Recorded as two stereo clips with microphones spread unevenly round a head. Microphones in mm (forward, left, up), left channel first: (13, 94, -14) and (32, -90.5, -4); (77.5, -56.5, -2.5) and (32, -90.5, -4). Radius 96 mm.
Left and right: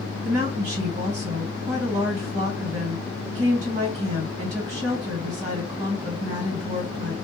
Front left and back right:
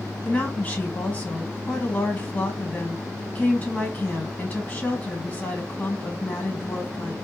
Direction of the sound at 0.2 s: 30° right.